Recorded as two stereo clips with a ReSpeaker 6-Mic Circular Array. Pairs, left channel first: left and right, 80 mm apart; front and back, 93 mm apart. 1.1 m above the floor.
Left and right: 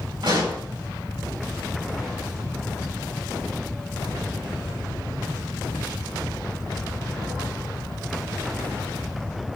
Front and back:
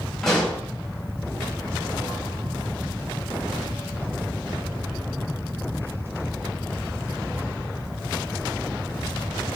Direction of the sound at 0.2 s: 85° right.